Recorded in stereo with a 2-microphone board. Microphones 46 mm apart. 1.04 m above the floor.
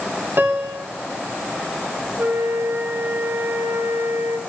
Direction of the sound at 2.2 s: 65° right (ahead or behind).